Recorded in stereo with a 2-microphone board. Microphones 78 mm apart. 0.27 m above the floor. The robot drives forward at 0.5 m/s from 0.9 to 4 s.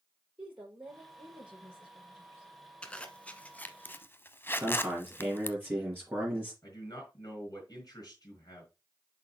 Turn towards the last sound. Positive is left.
turn(degrees=50)  # may be behind; listen again after turning